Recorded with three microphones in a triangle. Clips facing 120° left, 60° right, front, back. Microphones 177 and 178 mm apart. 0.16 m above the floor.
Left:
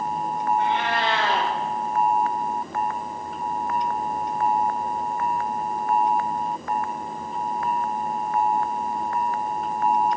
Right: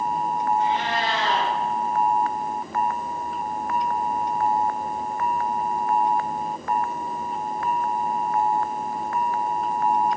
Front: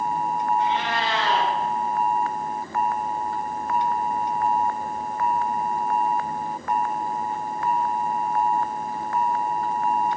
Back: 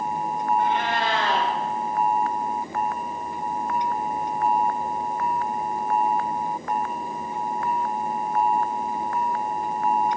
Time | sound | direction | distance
0.6 | a cat meowing | 145° left | 7.5 m